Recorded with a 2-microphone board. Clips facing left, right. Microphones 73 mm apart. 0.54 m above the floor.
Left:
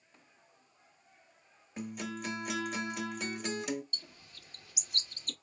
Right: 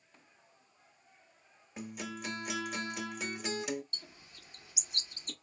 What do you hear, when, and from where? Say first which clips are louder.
1.8 s a guitar: left 2 dB; centre (ahead or behind), 0.7 m
3.9 s a bird: left 1 dB; 25° right (ahead or behind), 1.2 m